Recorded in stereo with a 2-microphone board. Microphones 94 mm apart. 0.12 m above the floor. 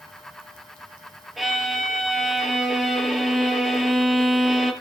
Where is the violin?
Centre (ahead or behind), 2 m.